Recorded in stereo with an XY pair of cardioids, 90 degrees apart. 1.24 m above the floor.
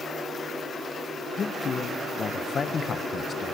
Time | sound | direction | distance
1.4 | a man speaking | 50° left | 0.9 m